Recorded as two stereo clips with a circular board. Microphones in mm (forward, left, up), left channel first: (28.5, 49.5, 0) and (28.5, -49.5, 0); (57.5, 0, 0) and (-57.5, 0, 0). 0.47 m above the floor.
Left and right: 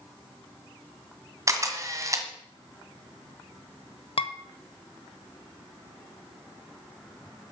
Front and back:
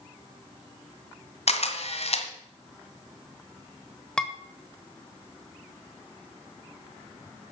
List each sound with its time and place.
1.5 s a camera shutter: 30° right, 1.7 m
4.2 s dishes clattering: 80° left, 1.2 m